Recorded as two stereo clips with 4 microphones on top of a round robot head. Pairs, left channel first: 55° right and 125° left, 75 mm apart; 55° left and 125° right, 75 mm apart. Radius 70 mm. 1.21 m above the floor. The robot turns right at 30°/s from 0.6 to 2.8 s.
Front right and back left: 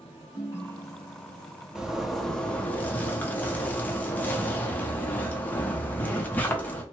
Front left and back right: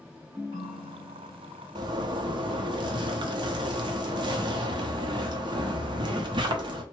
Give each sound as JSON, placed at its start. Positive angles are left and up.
{"t": 0.3, "sound": "a ringtone", "azimuth_deg": -170, "distance_m": 1.2}
{"t": 1.8, "sound": "a zipper", "azimuth_deg": -150, "distance_m": 0.7}